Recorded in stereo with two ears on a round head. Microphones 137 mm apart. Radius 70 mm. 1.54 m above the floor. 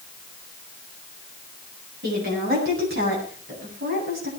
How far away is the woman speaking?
About 9.5 m.